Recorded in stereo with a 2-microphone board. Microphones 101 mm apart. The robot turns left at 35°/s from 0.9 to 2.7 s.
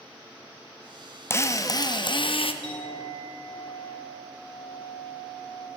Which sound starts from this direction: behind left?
A drill, at 1.3 s.